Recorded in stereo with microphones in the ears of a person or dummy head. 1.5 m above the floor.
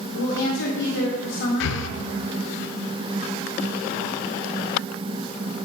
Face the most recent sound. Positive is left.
turn(degrees=60)  # may be behind; listen again after turning